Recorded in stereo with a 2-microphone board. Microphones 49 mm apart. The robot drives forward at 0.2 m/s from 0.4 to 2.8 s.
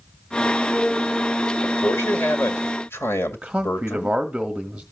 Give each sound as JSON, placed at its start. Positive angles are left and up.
{"t": 1.6, "sound": "a man speaking", "side_deg": 60, "distance_m": 1.9}
{"t": 3.3, "sound": "a man speaking", "side_deg": -15, "distance_m": 1.1}